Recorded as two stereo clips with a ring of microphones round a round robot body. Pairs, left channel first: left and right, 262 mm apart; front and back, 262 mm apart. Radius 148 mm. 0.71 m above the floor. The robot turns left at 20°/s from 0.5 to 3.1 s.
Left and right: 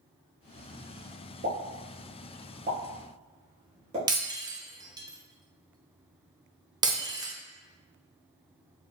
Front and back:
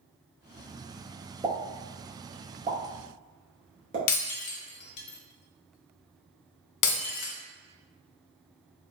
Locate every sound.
1.4 s a pop: 105° right, 1.1 m; by 4.0 s 140° right, 1.1 m
4.1 s breaking glass: 15° right, 0.6 m